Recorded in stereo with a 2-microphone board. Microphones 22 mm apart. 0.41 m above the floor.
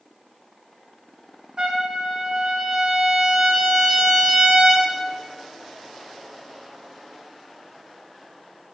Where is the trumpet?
40° right (ahead or behind), 1.0 m.